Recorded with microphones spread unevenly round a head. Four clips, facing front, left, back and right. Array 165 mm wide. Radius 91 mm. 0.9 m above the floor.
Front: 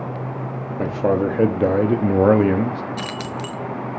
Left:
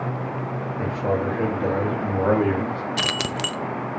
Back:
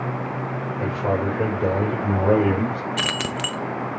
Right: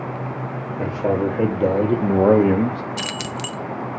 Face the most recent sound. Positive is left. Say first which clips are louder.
# left 2 dB, back 1 dB
turn(degrees=145)